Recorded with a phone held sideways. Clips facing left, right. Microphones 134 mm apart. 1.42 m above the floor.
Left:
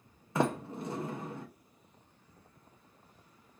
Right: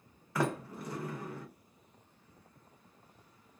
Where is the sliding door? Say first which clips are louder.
Left 3 dB; 25° left (ahead or behind), 0.6 m.